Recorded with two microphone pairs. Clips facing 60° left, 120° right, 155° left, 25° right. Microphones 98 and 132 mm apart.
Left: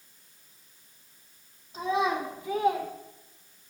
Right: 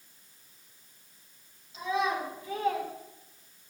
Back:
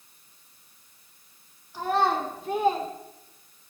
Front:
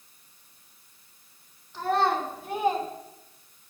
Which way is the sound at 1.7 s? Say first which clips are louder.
Left 3 dB, even; 75° left.